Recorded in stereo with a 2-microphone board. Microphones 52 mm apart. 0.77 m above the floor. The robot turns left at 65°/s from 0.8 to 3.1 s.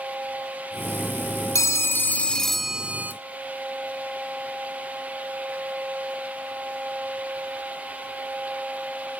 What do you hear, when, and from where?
1.6 s a phone ringing: 70° left, 0.8 m; by 3.1 s 30° right, 0.8 m